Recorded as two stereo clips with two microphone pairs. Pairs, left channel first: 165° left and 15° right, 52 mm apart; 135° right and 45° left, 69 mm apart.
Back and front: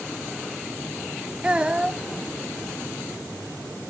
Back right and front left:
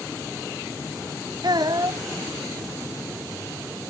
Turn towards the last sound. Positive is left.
turn(degrees=55)